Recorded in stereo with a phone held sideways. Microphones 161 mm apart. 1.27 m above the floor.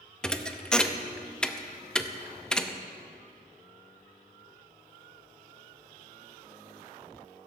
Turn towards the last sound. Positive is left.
turn(degrees=5)  # may be behind; listen again after turning